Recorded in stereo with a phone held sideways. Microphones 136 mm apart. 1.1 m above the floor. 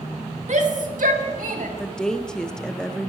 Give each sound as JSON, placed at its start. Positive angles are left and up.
{"t": 0.5, "sound": "a shout", "side_deg": -60, "distance_m": 1.5}
{"t": 1.8, "sound": "a woman speaking", "side_deg": 5, "distance_m": 0.7}